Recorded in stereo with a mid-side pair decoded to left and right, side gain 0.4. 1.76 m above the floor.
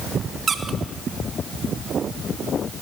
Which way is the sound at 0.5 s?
50° right.